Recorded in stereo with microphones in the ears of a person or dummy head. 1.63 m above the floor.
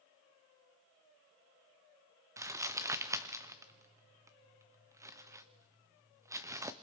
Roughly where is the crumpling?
Right.